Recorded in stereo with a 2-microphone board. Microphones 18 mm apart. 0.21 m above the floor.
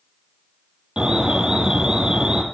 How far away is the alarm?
About 5 m.